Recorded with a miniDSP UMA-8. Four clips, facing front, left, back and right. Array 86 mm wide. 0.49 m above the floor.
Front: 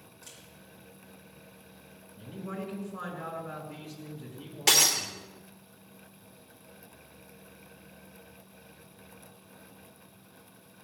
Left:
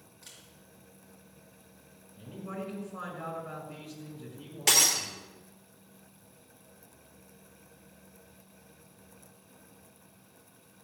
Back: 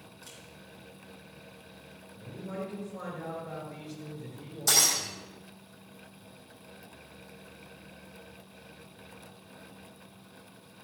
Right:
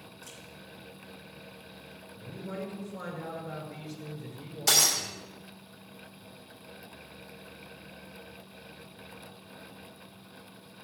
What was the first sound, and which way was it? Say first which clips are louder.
A camera shutter: right 7 dB, back 1 dB; 90° left.